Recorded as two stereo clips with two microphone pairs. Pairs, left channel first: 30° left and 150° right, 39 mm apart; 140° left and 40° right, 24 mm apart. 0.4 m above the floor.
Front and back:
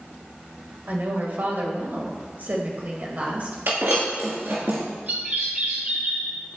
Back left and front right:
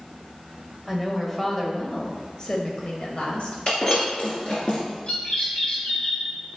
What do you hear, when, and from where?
0.9 s a woman speaking: 135° right, 1.8 m; by 3.6 s 170° left, 2.0 m
3.7 s breaking glass: 170° right, 2.5 m
5.1 s a bird: 170° left, 3.5 m